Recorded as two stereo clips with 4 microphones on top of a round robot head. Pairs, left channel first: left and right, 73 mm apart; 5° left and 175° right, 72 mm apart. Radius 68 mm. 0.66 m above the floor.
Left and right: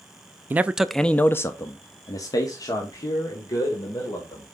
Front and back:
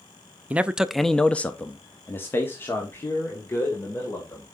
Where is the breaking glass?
No breaking glass in this recording.